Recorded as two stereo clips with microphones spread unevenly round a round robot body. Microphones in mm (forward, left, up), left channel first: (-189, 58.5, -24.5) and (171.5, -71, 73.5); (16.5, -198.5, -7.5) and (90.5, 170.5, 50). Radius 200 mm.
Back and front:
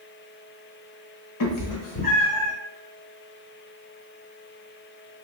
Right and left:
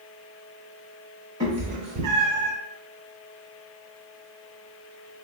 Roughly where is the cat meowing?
Behind.